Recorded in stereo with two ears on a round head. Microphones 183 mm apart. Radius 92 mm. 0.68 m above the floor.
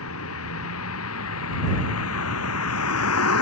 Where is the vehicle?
85° left; by 3.4 s 90° left.